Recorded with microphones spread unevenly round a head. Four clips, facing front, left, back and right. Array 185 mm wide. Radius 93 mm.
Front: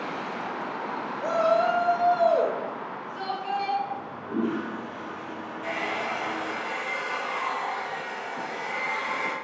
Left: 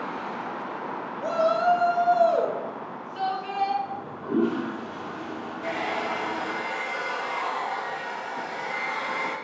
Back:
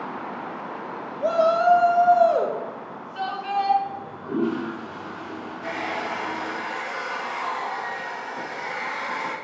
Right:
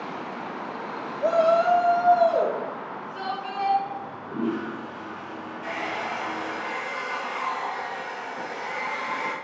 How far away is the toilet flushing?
About 0.9 m.